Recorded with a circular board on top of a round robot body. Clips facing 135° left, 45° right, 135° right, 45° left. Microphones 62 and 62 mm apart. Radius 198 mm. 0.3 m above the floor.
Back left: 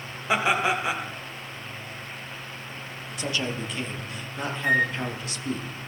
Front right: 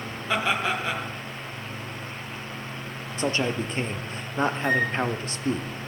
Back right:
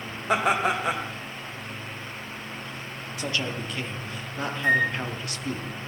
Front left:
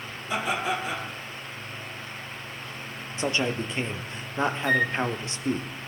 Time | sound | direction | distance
0.3 | laughter | 150° right | 3 m
3.2 | a man speaking | 10° right | 1.4 m
4.6 | a flute | 165° right | 5 m